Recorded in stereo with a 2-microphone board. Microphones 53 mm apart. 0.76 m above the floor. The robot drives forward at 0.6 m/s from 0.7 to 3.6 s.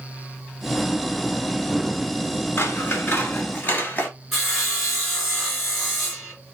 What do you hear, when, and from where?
2.6 s scissors: 40° left (ahead or behind), 1.7 m; by 4.1 s 30° left (ahead or behind), 2 m
4.3 s sawing: 5° left (ahead or behind), 3 m